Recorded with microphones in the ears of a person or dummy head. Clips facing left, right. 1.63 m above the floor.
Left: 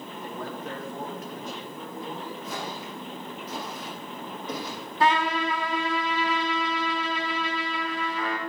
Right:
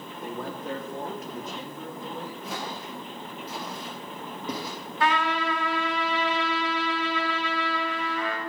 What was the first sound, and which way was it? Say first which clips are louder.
A man speaking: right 2 dB; 70° right (ahead or behind).